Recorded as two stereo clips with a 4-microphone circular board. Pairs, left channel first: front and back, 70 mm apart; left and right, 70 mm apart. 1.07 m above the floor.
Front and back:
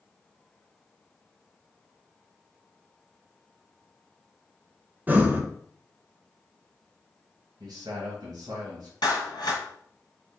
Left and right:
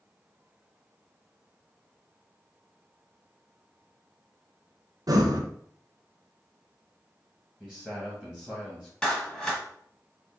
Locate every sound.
5.1 s breathing: 115° right, 0.6 m
7.6 s a man speaking: 165° left, 1.5 m
9.0 s a clap: 10° left, 1.2 m